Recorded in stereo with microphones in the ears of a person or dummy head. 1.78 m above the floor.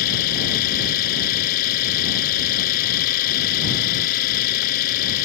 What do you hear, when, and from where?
0.0 s an engine running: 45° left (ahead or behind)